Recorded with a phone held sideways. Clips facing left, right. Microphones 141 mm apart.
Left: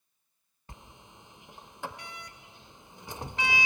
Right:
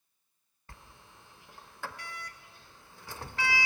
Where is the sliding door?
20° left (ahead or behind), 0.7 m.